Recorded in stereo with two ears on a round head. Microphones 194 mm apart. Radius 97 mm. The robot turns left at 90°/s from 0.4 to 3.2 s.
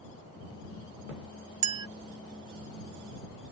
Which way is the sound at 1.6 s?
35° right (ahead or behind).